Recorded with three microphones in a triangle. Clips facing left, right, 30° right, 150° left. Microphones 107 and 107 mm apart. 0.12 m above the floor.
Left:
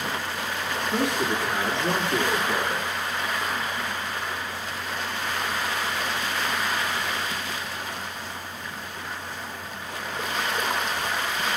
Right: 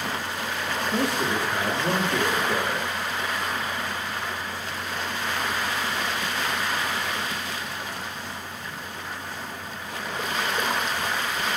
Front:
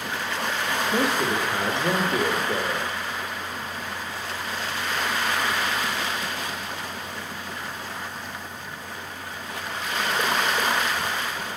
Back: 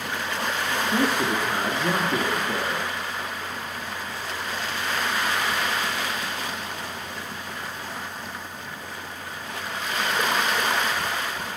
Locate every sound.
0.9 s a man speaking: 150° left, 1.5 m